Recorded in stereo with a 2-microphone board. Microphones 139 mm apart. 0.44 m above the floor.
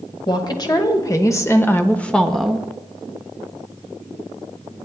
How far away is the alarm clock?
I don't hear an alarm clock.